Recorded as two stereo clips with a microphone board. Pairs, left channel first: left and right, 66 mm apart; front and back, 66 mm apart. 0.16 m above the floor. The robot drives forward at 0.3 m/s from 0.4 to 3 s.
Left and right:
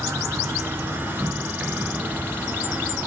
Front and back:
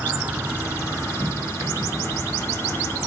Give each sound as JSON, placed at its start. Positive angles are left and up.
{"t": 0.0, "sound": "an insect", "azimuth_deg": -120, "distance_m": 0.9}